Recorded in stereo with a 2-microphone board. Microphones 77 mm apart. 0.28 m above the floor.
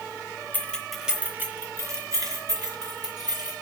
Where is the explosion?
No explosion in this recording.